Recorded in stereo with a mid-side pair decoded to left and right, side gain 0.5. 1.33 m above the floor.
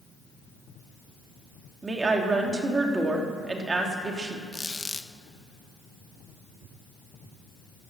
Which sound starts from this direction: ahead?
A squeak, at 4.5 s.